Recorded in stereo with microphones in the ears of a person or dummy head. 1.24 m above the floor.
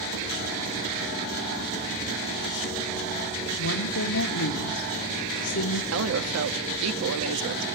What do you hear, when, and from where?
3.6 s a woman speaking: 80° left, 2 m
5.9 s a woman speaking: 80° right, 2 m